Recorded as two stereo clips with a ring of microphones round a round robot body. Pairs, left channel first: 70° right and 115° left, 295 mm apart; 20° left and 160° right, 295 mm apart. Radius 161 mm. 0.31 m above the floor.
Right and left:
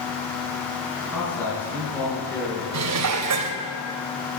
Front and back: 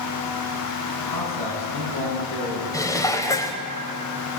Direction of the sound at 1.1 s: 15° left.